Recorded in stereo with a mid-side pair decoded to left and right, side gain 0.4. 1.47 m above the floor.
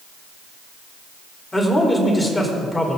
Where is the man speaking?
20° left, 4.5 m.